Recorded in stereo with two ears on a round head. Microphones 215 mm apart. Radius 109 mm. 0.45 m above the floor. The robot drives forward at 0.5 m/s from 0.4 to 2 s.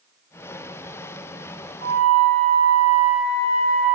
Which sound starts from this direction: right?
A flute, at 1.8 s.